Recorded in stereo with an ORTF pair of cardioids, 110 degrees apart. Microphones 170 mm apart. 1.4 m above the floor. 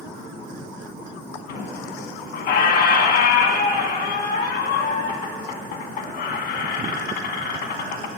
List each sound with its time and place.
1.5 s a squeak: 70° left, 1.4 m